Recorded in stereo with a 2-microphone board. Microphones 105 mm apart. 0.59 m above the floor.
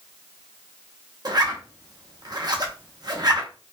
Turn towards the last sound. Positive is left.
turn(degrees=-40)  # may be behind; listen again after turning